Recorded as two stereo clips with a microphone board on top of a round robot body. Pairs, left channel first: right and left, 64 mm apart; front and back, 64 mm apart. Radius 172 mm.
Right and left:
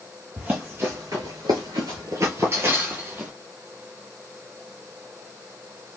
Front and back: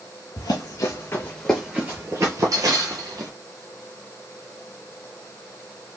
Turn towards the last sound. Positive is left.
turn(degrees=155)